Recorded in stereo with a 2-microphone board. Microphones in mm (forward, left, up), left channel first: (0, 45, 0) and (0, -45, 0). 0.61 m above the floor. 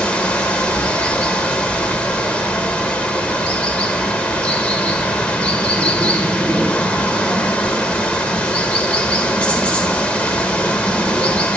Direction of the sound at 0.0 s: 15° left (ahead or behind).